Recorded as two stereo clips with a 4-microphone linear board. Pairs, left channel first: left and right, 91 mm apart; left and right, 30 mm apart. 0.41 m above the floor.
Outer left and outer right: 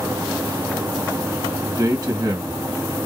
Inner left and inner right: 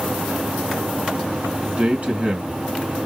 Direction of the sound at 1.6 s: 40° right (ahead or behind).